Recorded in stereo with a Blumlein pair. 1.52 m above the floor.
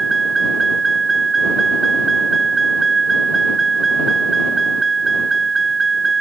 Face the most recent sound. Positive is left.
turn(degrees=-15)